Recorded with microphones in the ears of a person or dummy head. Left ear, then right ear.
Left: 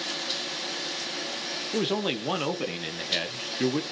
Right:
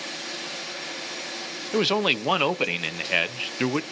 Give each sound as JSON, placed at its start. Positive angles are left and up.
{"t": 1.7, "sound": "a man speaking", "side_deg": -40, "distance_m": 0.7}